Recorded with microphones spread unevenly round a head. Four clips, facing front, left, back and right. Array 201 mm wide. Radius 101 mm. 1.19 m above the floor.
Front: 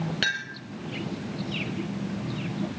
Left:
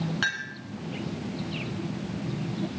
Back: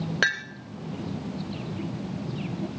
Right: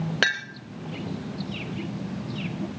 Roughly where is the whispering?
No whispering in this recording.